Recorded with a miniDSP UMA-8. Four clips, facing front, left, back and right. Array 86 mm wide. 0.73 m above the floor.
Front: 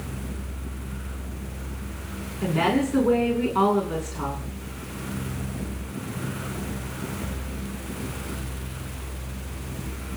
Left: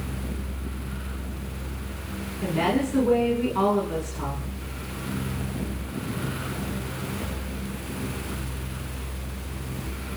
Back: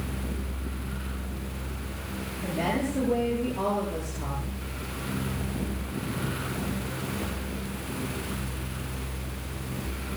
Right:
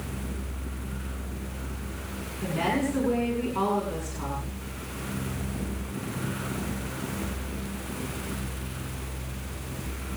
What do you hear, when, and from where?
2.4 s a woman speaking: 10° left, 7.5 m